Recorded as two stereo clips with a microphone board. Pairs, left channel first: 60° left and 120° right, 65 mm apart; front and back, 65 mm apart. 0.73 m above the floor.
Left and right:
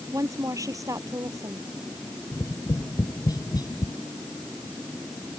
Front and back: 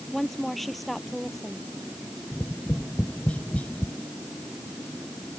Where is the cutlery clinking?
No cutlery clinking in this recording.